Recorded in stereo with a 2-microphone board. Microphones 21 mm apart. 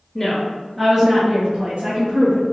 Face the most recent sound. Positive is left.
turn(degrees=-50)  # may be behind; listen again after turning